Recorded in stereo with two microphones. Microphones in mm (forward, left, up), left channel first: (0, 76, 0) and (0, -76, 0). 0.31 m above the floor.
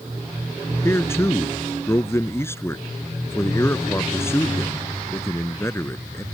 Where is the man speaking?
15° left (ahead or behind).